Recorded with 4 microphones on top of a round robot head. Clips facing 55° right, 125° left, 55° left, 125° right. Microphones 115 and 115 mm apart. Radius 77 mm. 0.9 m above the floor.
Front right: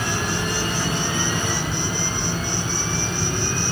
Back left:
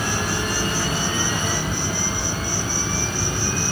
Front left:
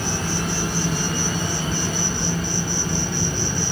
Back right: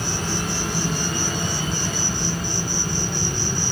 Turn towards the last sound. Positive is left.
turn(degrees=45)